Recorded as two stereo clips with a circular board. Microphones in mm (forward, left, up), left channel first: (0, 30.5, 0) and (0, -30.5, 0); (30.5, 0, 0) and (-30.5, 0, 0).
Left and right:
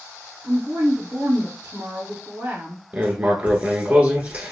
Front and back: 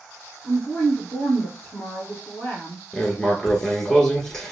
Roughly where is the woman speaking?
Ahead right.